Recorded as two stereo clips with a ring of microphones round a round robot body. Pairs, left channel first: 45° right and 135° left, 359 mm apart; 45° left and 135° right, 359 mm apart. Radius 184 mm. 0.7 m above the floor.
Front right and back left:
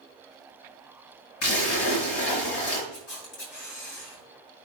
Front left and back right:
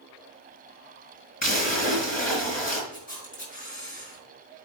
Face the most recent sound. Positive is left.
turn(degrees=-25)